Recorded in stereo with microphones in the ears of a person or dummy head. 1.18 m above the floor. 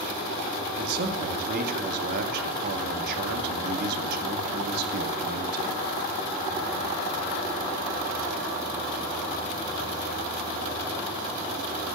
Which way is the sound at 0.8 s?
60° right (ahead or behind).